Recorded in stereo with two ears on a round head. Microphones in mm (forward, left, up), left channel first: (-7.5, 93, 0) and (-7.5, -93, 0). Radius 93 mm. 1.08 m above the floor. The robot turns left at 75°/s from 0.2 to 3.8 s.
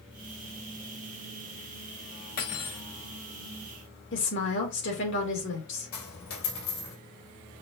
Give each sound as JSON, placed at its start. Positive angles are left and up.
{"t": 2.4, "sound": "cutlery clinking", "azimuth_deg": 45, "distance_m": 1.1}
{"t": 4.1, "sound": "a woman speaking", "side_deg": 65, "distance_m": 2.0}
{"t": 5.9, "sound": "a dropped coin", "side_deg": 80, "distance_m": 2.5}